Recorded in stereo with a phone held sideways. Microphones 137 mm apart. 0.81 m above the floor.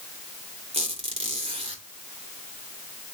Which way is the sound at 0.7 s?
45° right (ahead or behind).